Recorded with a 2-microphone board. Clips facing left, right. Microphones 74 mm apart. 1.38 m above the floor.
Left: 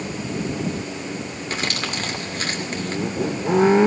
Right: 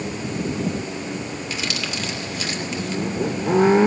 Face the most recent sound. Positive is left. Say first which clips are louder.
# left 4 dB
turn(degrees=45)  # may be behind; listen again after turning